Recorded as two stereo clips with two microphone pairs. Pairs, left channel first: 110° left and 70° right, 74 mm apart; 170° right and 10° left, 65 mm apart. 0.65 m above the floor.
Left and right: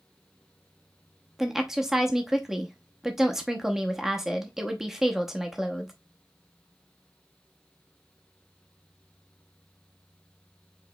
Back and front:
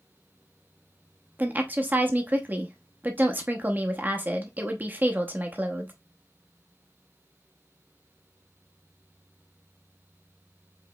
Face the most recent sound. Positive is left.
turn(degrees=0)